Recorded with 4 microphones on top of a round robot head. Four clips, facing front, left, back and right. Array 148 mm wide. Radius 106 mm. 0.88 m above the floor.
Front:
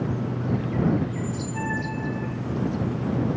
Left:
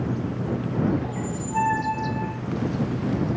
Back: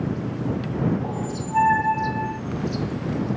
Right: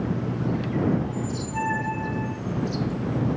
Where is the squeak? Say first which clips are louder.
Even, back 2 dB; 165° left.